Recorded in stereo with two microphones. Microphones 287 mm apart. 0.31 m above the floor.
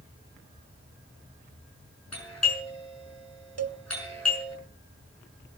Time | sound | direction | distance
2.1 | a doorbell | 70° left (ahead or behind) | 6.5 m
3.6 | a cowbell | 65° right (ahead or behind) | 0.8 m